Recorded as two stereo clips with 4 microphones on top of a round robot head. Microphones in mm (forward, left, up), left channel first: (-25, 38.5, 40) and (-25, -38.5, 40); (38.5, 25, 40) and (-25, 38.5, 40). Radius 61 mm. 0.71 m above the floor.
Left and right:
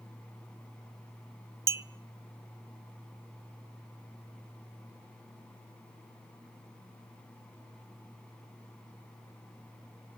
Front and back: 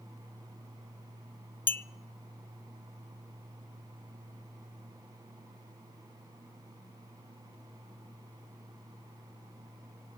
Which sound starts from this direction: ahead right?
A clink, at 1.7 s.